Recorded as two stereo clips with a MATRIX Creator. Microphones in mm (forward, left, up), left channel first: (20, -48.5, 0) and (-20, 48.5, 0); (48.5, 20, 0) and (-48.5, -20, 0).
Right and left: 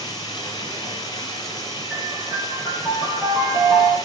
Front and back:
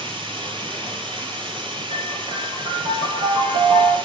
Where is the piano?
165° right, 6.5 m.